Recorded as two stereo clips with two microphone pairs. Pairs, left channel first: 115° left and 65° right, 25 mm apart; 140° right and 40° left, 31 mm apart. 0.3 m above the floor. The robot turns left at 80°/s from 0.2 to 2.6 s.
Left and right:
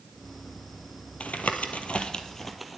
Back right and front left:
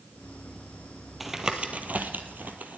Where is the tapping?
130° left, 1.3 m; by 2.8 s 15° left, 1.3 m.